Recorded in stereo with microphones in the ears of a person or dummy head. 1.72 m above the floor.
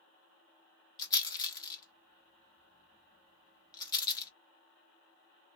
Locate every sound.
1.0 s a rattle: 35° left (ahead or behind), 0.8 m